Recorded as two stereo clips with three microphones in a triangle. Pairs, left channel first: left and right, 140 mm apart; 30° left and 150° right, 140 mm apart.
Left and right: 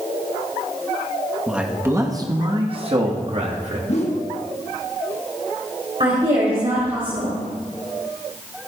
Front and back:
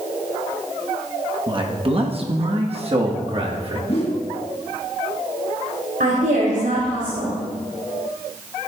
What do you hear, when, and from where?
1.5 s a man speaking: 175° right, 1.2 m; by 3.8 s 110° right, 2 m
3.9 s a whoosh: 65° left, 1.5 m
6.0 s a woman speaking: 140° right, 3.5 m